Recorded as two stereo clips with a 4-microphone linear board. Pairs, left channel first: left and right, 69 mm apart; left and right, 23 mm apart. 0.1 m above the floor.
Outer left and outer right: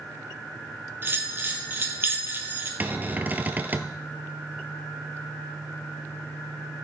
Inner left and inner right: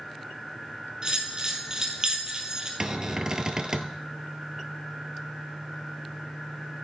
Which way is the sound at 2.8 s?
25° right (ahead or behind).